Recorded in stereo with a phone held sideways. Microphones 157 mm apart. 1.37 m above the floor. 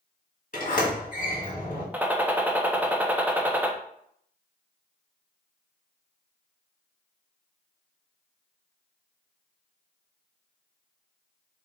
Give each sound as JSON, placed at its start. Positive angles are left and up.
{"t": 0.5, "sound": "a sliding door", "side_deg": 55, "distance_m": 1.7}
{"t": 1.9, "sound": "a gunshot", "side_deg": -10, "distance_m": 0.5}